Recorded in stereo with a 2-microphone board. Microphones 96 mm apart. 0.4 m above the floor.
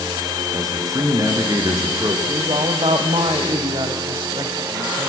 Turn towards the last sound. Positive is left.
turn(degrees=-65)  # may be behind; listen again after turning